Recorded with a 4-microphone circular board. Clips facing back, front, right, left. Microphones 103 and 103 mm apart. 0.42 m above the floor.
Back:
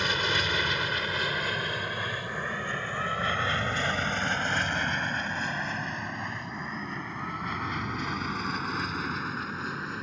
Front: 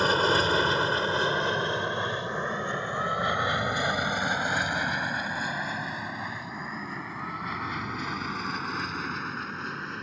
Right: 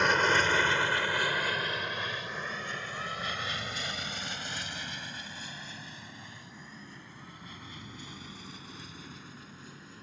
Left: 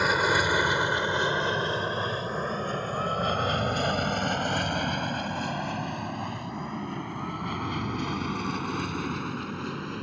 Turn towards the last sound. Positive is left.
turn(degrees=95)